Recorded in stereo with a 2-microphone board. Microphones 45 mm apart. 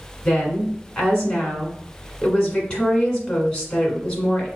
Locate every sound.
0.2 s a woman speaking: 20° left (ahead or behind), 1.4 m